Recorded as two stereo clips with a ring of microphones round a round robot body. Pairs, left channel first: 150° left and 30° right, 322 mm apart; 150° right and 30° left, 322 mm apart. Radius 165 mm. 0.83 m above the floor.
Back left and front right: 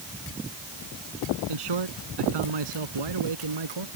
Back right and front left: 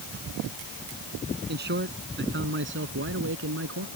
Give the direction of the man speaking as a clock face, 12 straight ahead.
1 o'clock.